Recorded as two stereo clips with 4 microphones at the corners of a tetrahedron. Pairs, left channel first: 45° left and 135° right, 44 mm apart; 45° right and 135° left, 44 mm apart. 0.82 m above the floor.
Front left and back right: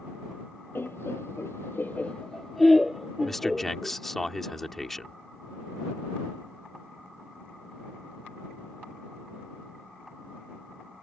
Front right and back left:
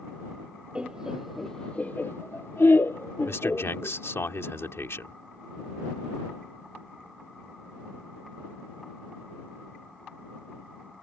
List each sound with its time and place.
0.8 s laughter: 70° left; by 4.0 s 60° right
3.2 s a man speaking: 40° right